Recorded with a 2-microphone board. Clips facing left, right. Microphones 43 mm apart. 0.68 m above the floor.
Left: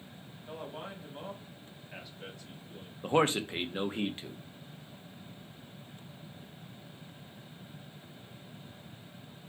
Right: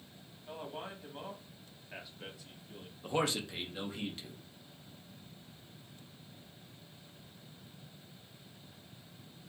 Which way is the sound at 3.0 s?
35° left (ahead or behind).